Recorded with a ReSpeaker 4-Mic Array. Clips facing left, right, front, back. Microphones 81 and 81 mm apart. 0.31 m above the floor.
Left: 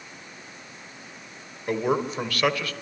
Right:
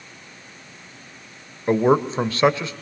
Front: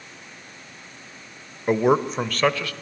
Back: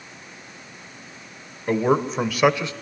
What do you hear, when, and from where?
1.7 s a man speaking: 60° right, 1.3 m; by 2.7 s 140° right, 1.3 m